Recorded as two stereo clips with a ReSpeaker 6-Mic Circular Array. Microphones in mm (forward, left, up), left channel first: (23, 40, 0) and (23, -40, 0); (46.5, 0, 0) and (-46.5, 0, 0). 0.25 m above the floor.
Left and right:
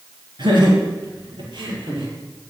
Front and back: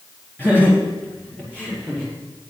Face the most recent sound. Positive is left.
turn(degrees=-75)